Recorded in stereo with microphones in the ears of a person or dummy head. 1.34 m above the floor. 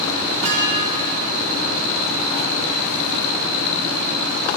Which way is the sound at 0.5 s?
30° right (ahead or behind).